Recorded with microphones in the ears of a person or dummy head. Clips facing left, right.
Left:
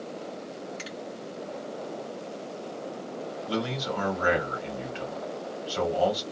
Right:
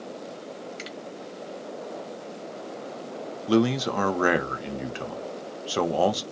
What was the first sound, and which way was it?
A finger snap, 20° right (ahead or behind).